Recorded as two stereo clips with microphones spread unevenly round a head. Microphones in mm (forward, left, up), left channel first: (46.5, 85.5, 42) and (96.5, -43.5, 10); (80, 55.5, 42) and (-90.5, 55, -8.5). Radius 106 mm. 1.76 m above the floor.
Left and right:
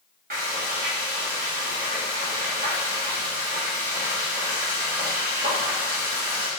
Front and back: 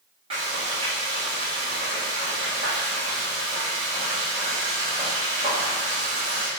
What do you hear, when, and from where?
0.3 s frying: 110° right, 4 m